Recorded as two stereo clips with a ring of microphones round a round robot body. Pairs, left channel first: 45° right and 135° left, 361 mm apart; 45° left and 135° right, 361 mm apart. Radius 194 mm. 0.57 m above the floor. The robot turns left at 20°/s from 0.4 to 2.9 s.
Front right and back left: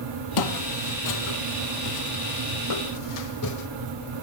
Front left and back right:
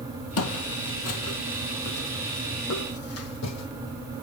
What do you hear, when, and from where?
0.4 s footsteps: 10° right, 1.6 m; by 3.7 s straight ahead, 2 m